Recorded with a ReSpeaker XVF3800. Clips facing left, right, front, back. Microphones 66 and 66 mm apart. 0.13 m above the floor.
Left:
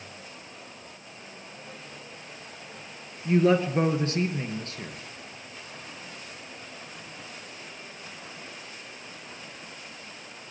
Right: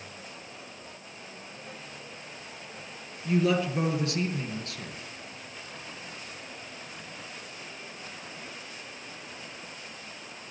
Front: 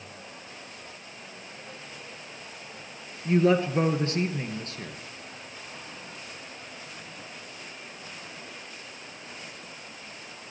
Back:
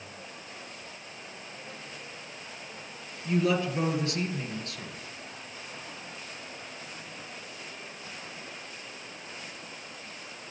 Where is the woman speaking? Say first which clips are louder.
Left 4 dB, front 5 dB; 45° left, 2.5 m.